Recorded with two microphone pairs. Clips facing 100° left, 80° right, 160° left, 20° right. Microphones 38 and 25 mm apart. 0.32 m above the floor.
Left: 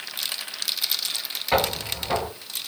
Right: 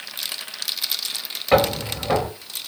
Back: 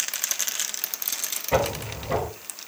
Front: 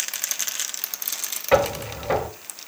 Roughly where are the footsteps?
Ahead right.